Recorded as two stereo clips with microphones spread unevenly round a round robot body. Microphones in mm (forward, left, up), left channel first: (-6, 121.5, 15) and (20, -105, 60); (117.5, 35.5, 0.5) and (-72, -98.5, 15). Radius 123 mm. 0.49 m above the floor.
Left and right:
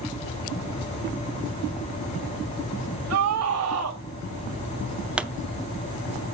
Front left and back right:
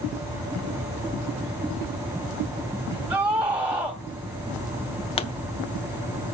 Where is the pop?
20° left, 0.6 m.